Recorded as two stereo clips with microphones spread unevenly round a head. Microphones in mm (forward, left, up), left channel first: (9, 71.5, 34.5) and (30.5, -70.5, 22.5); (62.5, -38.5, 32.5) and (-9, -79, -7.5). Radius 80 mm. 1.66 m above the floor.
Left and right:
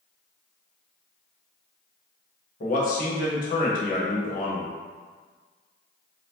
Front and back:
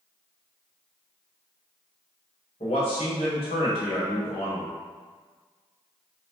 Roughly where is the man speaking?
Ahead left.